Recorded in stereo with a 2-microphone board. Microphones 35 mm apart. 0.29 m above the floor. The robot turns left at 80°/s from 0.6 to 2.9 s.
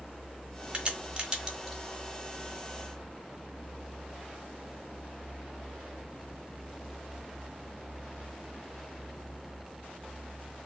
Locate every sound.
0.7 s a crack: 30° right (ahead or behind), 0.9 m; by 1.8 s 10° right (ahead or behind), 0.9 m